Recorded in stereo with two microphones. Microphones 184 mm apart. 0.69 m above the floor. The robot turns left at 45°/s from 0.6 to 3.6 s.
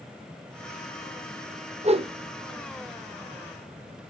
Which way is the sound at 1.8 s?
40° right (ahead or behind).